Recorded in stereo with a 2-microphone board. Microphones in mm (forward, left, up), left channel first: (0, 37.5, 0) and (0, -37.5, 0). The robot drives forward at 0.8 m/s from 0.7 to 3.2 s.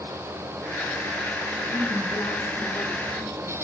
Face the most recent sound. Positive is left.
turn(degrees=45)  # may be behind; listen again after turning